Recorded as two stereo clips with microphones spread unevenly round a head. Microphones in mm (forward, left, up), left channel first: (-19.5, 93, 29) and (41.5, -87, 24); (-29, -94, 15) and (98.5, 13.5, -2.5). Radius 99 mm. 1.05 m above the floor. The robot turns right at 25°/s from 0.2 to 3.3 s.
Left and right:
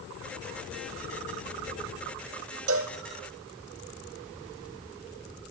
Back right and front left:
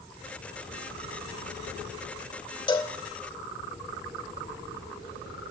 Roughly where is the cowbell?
Right.